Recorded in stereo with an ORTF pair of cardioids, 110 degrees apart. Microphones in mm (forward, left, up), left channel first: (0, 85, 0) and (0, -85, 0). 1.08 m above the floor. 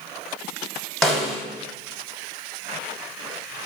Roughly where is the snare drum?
Ahead.